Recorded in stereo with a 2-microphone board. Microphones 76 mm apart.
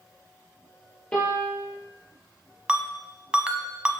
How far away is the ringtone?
About 0.6 m.